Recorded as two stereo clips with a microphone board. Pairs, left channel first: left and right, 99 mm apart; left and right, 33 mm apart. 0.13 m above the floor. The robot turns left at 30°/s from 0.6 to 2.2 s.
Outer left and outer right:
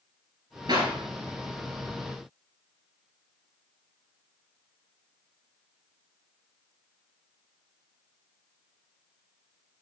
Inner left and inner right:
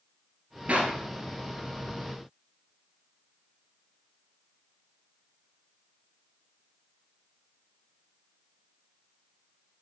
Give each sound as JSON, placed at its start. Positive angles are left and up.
{"t": 0.7, "sound": "a clap", "side_deg": -45, "distance_m": 1.9}